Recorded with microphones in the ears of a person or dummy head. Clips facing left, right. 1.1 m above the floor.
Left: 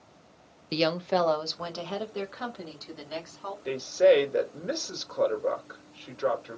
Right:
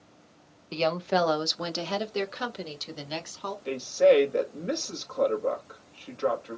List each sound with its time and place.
0.7 s a woman speaking: 20° left (ahead or behind), 0.6 m; by 3.5 s 45° right (ahead or behind), 2 m
3.6 s a woman speaking: centre (ahead or behind), 1.6 m